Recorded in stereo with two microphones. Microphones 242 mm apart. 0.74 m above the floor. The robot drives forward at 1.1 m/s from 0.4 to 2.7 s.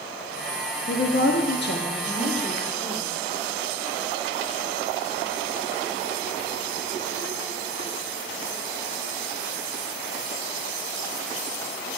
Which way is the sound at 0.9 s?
45° left (ahead or behind).